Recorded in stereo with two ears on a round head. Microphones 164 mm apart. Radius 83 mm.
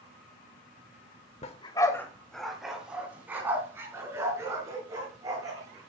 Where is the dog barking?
35° left (ahead or behind), 1.1 m; by 5.9 s 20° right (ahead or behind), 6 m.